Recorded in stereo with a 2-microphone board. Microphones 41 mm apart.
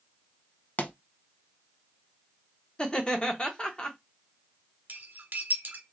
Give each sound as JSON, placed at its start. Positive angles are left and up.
{"t": 0.8, "sound": "a pop", "side_deg": 45, "distance_m": 0.5}
{"t": 2.8, "sound": "laughter", "side_deg": 20, "distance_m": 0.8}
{"t": 4.9, "sound": "cutlery clinking", "side_deg": -45, "distance_m": 1.0}